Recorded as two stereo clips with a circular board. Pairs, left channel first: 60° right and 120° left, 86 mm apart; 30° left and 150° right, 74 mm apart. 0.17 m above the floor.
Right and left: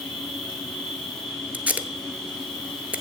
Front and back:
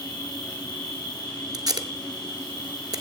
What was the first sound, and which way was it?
An insect, 20° left.